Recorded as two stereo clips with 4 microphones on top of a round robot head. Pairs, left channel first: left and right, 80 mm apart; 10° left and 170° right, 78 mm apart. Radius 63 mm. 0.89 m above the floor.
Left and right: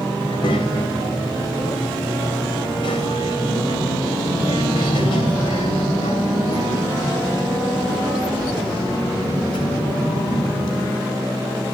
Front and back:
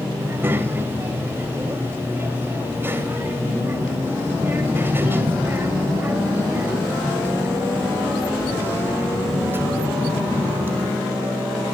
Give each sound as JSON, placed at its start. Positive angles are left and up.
{"t": 0.2, "sound": "a child speaking", "azimuth_deg": 125, "distance_m": 3.0}